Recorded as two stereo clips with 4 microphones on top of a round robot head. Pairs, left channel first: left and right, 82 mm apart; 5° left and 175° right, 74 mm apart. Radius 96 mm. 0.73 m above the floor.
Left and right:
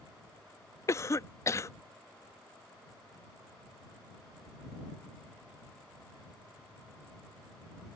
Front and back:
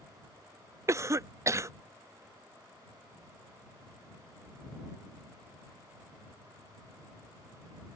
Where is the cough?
140° left.